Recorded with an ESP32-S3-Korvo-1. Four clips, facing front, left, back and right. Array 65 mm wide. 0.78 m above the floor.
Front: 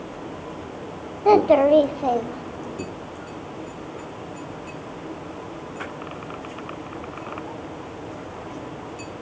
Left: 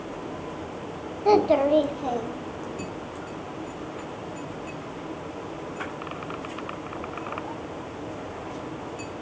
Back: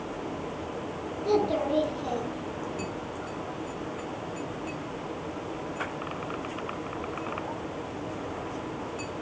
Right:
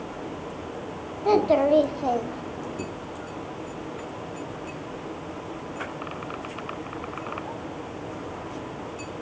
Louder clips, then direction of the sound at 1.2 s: Even, front 11 dB; 10° left.